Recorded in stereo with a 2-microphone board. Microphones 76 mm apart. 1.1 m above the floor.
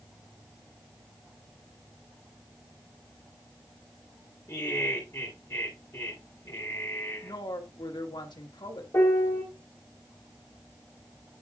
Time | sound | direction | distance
4.5 | laughter | 35° left (ahead or behind) | 3 m
7.2 | a woman speaking | 80° left | 1.8 m
8.9 | a piano | 35° left (ahead or behind) | 4 m